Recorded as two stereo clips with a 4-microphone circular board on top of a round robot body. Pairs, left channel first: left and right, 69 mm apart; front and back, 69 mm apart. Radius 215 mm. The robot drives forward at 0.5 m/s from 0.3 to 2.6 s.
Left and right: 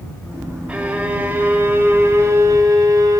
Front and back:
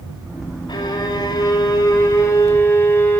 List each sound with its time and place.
0.7 s a violin: 20° right, 1.3 m; by 3.2 s 55° right, 0.6 m